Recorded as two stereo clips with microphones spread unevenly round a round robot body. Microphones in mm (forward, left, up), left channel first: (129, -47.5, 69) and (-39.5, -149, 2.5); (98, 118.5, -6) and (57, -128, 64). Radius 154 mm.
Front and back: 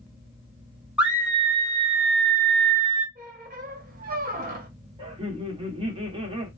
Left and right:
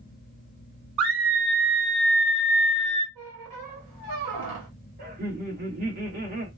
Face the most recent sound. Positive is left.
turn(degrees=-160)